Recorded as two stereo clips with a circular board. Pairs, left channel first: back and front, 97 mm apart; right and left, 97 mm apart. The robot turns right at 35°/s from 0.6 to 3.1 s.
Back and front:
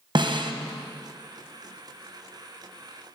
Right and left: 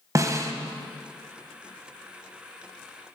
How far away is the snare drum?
About 0.7 m.